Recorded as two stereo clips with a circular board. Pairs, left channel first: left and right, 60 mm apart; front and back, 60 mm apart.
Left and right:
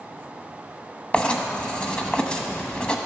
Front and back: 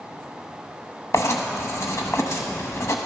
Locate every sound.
1.1 s writing: 20° left, 0.9 m